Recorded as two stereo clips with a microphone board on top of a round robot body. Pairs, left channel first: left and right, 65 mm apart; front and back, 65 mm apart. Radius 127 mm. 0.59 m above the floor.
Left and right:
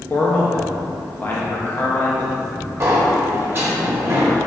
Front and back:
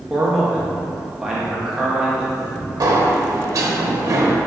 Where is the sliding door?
145° right, 0.5 m.